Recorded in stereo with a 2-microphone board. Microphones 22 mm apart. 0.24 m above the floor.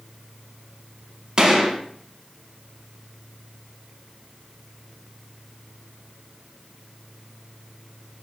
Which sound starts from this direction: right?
A gunshot, at 1.4 s.